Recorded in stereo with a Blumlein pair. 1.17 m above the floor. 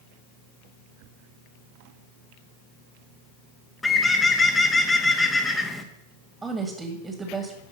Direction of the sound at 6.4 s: 10° right.